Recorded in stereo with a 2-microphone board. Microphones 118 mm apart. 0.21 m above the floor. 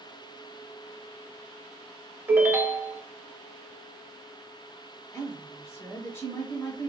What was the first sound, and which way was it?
A ringtone, 20° right (ahead or behind).